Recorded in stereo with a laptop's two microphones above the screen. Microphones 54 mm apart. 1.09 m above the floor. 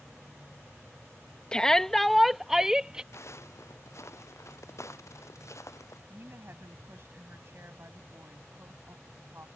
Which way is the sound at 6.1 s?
50° right (ahead or behind).